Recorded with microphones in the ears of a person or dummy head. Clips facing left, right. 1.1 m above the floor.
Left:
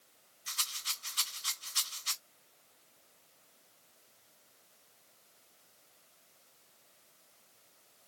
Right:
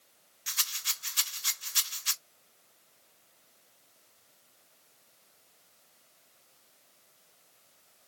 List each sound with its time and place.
0.5 s a rattle: 25° right (ahead or behind), 0.6 m